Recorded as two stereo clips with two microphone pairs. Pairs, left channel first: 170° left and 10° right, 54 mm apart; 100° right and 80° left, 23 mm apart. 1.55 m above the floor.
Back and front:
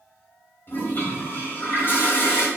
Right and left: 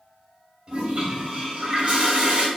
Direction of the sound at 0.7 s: 125° left.